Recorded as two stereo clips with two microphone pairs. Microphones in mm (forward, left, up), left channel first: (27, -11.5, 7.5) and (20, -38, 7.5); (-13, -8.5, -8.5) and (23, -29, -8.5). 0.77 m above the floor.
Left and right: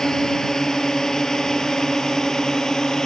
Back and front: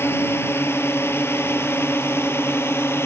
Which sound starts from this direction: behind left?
A drone, at 0.0 s.